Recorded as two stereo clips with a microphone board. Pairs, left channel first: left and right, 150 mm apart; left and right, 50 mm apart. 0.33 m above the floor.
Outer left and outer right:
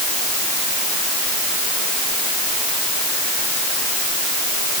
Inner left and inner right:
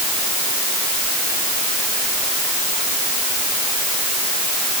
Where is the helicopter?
I don't hear a helicopter.